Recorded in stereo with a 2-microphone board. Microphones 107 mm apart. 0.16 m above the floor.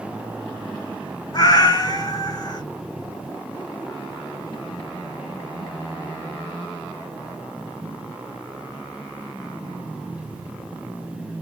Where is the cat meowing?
40° left (ahead or behind), 0.6 m.